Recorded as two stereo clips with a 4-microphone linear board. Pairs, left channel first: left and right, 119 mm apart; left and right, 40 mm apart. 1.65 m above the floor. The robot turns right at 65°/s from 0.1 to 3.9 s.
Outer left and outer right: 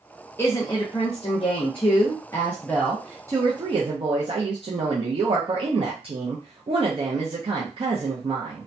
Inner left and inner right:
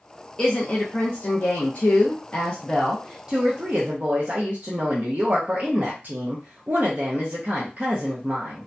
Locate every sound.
0.4 s a woman speaking: 20° left, 0.6 m; by 8.7 s 110° right, 0.6 m